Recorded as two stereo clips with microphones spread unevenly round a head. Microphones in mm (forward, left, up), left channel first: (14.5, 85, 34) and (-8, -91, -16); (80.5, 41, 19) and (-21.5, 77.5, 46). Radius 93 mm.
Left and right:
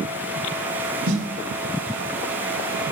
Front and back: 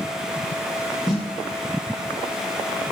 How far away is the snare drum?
About 8 m.